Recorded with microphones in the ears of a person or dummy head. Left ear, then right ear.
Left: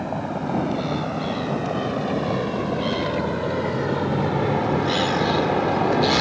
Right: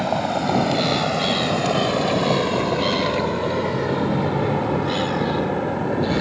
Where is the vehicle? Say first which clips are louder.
Right 6 dB; 40° right (ahead or behind); by 6.2 s 40° left (ahead or behind).